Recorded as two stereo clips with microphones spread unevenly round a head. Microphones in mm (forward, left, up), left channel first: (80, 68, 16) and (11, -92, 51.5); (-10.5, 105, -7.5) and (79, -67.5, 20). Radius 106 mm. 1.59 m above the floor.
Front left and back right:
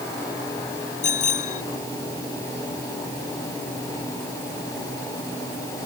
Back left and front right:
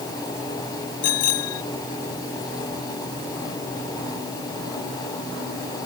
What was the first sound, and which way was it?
A bicycle bell, 125° left.